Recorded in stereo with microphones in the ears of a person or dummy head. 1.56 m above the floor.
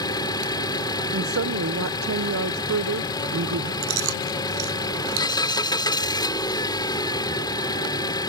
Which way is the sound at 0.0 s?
20° left (ahead or behind).